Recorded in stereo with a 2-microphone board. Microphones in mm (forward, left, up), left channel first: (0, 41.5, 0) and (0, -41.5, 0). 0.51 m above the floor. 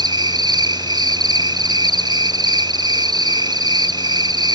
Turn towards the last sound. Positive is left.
turn(degrees=-55)  # may be behind; listen again after turning